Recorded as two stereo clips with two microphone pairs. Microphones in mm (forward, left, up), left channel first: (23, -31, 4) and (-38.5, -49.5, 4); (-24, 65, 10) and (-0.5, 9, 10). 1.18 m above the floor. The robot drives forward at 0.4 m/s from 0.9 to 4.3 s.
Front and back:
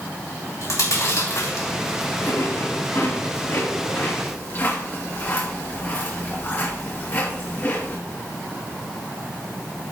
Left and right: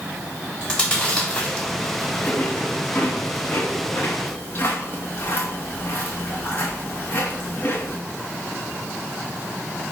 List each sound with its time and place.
0.6 s chewing: 40° left, 3 m; by 8.0 s 65° left, 2 m